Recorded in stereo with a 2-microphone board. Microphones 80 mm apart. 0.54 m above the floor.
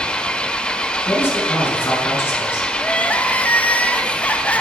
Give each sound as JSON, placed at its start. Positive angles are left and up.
{"t": 0.0, "sound": "an engine running", "side_deg": 10, "distance_m": 0.9}
{"t": 1.1, "sound": "a man speaking", "side_deg": 30, "distance_m": 6.0}
{"t": 2.8, "sound": "crying", "side_deg": 20, "distance_m": 1.2}